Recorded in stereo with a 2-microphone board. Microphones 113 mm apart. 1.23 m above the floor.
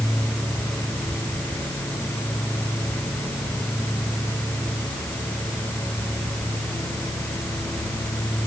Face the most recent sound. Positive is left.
No sound to turn to.